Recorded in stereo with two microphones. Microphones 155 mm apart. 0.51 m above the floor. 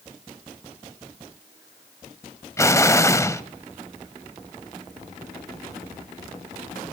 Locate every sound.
2.6 s an explosion: 20° left (ahead or behind), 0.6 m